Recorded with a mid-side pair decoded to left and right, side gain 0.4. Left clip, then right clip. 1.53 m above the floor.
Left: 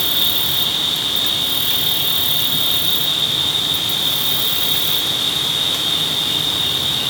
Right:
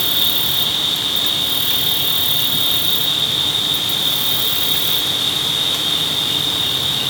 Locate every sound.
0.0 s an insect: 5° right, 1.0 m